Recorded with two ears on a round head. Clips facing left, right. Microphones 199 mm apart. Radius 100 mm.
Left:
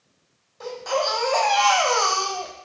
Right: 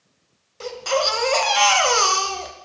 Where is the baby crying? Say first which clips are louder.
Right 2 dB; 40° right (ahead or behind), 1.0 m.